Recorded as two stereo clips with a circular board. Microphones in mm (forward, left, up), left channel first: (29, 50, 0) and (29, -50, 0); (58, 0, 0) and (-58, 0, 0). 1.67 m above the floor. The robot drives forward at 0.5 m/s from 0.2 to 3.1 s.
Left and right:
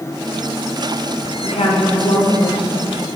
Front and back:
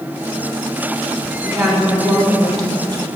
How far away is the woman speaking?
About 1.4 m.